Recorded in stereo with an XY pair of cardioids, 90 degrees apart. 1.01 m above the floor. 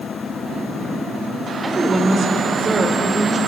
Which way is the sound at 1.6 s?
35° right.